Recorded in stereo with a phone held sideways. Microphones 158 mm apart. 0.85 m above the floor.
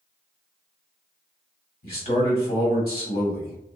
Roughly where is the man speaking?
Left.